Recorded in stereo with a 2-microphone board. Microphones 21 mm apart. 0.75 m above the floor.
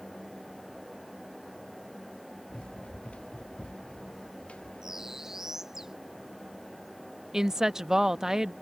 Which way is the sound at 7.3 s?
25° right (ahead or behind).